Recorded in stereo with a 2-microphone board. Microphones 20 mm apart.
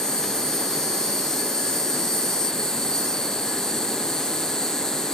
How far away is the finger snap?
No finger snap in this recording.